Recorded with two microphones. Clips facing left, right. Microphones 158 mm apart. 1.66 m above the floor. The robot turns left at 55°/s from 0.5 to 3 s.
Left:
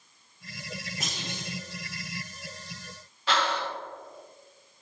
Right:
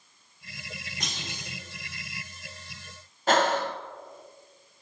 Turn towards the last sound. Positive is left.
turn(degrees=-45)  # may be behind; listen again after turning